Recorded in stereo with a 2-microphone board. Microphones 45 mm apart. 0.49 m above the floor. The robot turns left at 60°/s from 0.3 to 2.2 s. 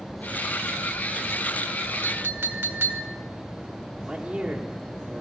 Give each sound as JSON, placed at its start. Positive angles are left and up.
{"t": 2.0, "sound": "a clink", "side_deg": -60, "distance_m": 1.5}
{"t": 4.0, "sound": "a man speaking", "side_deg": -15, "distance_m": 1.3}